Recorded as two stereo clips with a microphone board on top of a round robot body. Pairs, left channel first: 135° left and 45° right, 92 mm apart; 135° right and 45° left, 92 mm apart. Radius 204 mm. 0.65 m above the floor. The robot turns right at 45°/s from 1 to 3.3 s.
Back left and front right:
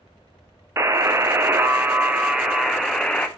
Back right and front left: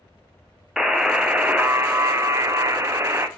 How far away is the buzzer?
About 0.6 m.